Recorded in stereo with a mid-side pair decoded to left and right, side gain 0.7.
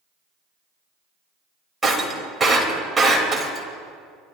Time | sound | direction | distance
1.8 | breaking glass | 10° right | 4 m